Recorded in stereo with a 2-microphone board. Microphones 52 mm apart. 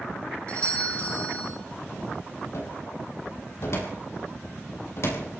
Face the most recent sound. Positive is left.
turn(degrees=60)  # may be behind; listen again after turning